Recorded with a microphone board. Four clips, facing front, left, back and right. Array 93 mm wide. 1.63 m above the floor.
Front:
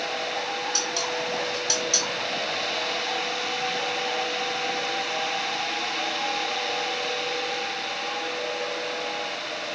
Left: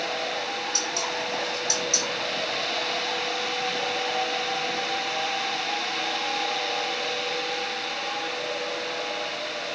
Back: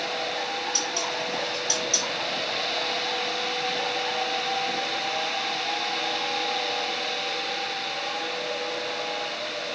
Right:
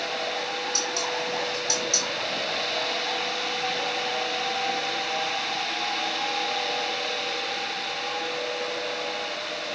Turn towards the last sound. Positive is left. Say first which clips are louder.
# right 1 dB, front 1 dB
turn(degrees=0)